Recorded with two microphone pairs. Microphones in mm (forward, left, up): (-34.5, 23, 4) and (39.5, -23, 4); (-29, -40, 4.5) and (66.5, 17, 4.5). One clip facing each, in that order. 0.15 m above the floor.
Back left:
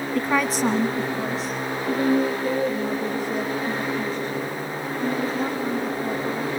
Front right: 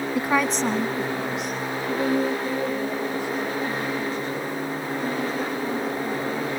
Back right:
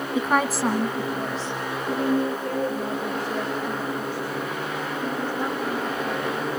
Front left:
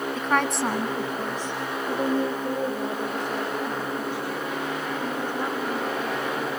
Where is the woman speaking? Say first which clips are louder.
Back left 1 dB, back right 3 dB; 85° right, 1.1 m; by 6.5 s 100° left, 9.5 m.